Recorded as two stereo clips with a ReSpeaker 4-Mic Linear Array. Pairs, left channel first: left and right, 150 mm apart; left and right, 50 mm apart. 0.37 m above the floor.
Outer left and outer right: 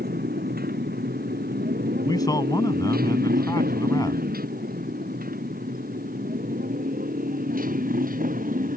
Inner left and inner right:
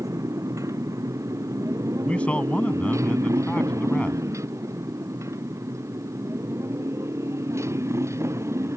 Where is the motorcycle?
85° right; by 8.8 s 65° right (ahead or behind).